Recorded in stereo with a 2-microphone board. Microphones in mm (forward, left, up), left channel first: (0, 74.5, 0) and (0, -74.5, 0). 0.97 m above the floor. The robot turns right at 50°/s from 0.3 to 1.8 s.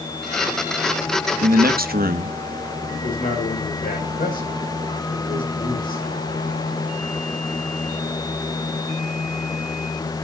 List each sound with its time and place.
1.4 s a man speaking: 70° right (ahead or behind), 1.1 m; by 2.4 s 75° right (ahead or behind), 1.1 m
2.9 s a man speaking: 70° left (ahead or behind), 6 m